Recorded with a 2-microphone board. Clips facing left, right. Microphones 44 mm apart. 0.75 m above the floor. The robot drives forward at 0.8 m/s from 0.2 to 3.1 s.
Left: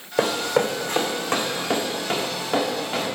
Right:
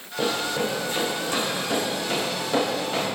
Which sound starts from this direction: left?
Running footsteps, at 0.2 s.